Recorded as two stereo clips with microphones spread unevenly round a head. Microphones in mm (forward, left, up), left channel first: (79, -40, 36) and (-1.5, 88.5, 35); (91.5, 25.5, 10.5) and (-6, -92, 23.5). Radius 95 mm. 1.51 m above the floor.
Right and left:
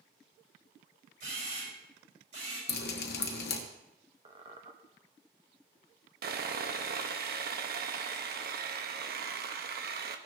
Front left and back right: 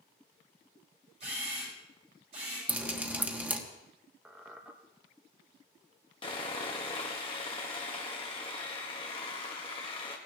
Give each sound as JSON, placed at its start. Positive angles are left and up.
{"t": 1.2, "sound": "a camera shutter", "azimuth_deg": 170, "distance_m": 7.0}
{"t": 2.7, "sound": "dripping", "azimuth_deg": -50, "distance_m": 1.2}
{"t": 4.2, "sound": "a squeak", "azimuth_deg": 160, "distance_m": 0.8}
{"t": 6.2, "sound": "sawing", "azimuth_deg": 110, "distance_m": 1.0}